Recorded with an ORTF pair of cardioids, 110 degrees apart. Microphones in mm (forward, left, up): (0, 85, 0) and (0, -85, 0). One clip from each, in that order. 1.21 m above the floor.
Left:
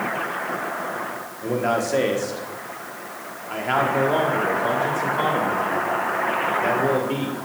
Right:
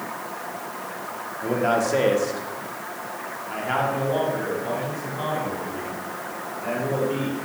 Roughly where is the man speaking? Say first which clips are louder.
Right 1 dB; ahead.